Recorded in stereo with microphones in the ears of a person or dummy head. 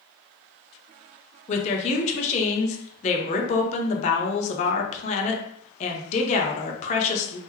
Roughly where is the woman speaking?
Left.